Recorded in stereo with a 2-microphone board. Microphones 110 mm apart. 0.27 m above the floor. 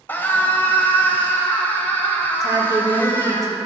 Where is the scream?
20° left (ahead or behind), 1.3 m.